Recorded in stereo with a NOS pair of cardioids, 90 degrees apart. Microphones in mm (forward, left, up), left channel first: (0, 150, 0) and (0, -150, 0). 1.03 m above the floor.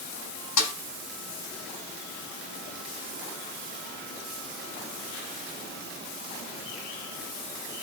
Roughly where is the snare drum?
Ahead left.